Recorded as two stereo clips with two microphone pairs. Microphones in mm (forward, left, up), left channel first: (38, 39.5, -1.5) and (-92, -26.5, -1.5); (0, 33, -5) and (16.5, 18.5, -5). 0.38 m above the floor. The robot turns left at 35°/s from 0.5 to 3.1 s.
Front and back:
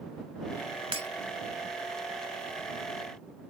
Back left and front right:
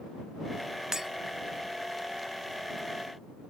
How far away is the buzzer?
No buzzer in this recording.